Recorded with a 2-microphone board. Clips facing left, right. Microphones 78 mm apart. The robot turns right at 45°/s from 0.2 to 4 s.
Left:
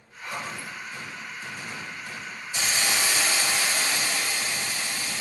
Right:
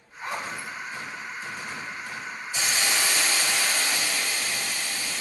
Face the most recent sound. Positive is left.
turn(degrees=15)  # may be behind; listen again after turning